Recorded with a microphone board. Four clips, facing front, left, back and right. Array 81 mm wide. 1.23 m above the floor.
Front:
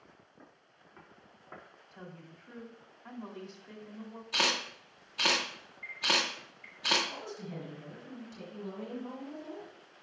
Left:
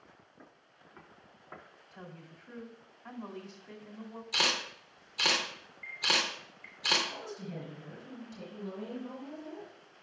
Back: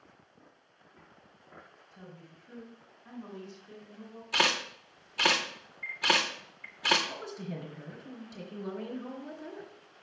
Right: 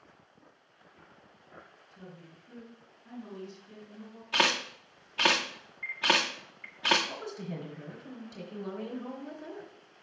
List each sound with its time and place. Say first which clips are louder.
0.4 s footsteps: left 2 dB, front 2 dB; 55° left, 4 m; by 1.6 s 50° left, 5 m
1.9 s a woman speaking: left 1 dB, front 2 dB; 50° left, 3 m
4.3 s a camera shutter: right 5 dB, back 3 dB; 95° right, 1.9 m
7.1 s a woman speaking: right 3 dB, back 2 dB; 130° right, 3.5 m